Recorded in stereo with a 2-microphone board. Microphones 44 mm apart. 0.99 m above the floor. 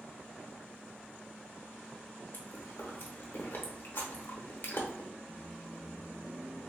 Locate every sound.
2.3 s chewing: 50° left (ahead or behind), 0.9 m
5.3 s a microwave: 20° right (ahead or behind), 0.8 m